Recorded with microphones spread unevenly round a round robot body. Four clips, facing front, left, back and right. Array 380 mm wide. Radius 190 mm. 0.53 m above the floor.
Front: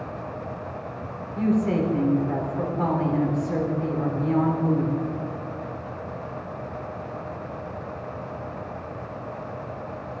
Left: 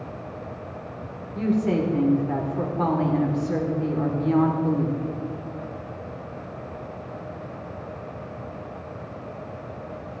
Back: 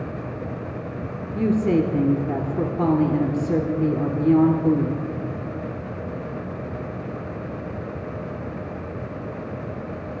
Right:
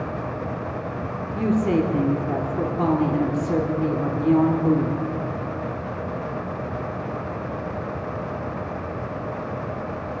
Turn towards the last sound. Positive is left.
turn(degrees=-160)